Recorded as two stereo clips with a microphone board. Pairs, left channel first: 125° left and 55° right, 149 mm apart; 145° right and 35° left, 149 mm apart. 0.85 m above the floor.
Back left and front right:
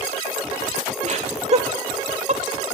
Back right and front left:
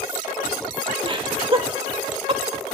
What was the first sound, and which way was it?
Laughter, 20° right.